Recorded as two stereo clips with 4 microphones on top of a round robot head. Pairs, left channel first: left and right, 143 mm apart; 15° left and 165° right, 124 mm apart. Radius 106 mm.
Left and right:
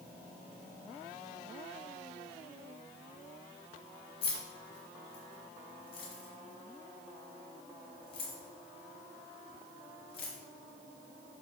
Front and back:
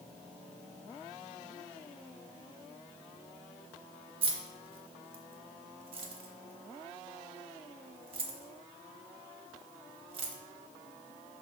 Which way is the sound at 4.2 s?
150° left.